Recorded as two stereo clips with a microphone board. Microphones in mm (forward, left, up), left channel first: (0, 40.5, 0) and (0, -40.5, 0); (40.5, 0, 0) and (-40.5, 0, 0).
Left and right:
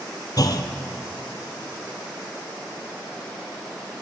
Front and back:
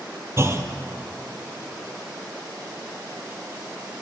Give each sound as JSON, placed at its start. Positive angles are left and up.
{"t": 0.4, "sound": "a clunk", "azimuth_deg": 125, "distance_m": 1.3}